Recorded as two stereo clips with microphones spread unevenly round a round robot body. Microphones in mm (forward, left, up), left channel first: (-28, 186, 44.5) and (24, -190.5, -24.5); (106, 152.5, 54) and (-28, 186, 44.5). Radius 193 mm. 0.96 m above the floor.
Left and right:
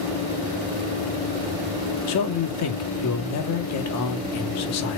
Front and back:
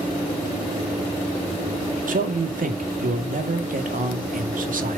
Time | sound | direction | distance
2.1 | a man speaking | 150° left | 1.9 m